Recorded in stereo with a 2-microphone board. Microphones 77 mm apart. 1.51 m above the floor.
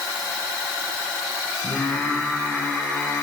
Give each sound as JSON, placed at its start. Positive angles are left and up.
{"t": 1.6, "sound": "singing", "side_deg": 20, "distance_m": 7.5}